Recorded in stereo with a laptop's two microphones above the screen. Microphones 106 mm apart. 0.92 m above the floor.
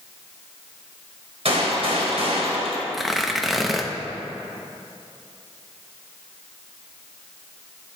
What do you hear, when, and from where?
1.4 s a gunshot: 70° right (ahead or behind), 2.5 m
2.9 s tearing paper: centre (ahead or behind), 0.7 m